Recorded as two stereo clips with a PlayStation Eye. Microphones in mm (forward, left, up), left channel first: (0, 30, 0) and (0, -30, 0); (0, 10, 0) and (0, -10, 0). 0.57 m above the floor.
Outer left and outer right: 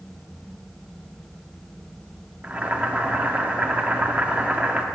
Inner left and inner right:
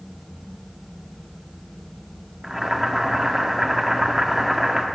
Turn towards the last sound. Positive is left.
turn(degrees=-25)  # may be behind; listen again after turning